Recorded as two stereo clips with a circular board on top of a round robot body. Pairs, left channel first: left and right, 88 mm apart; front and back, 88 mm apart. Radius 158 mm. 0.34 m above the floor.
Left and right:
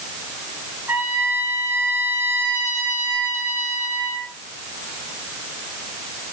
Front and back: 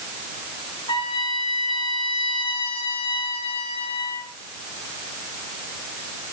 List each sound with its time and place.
0.9 s a trumpet: 25° right, 8 m